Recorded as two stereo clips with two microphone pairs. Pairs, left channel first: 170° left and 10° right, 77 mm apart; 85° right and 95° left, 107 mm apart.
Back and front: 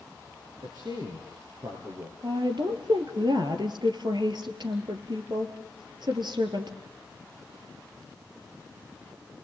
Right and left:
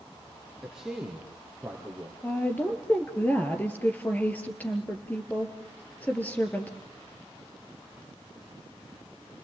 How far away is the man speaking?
About 3.5 m.